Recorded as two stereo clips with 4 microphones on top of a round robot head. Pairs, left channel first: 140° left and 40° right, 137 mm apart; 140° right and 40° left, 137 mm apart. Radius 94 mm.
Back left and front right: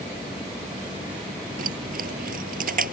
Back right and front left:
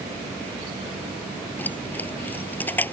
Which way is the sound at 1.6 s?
60° right.